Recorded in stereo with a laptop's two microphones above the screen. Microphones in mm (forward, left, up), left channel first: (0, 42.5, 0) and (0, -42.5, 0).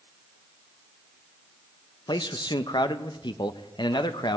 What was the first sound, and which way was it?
A man speaking, 65° left (ahead or behind).